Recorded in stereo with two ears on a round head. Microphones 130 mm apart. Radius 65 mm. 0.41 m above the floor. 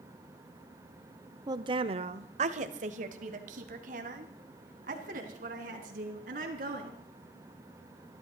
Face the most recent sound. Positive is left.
turn(degrees=-60)  # may be behind; listen again after turning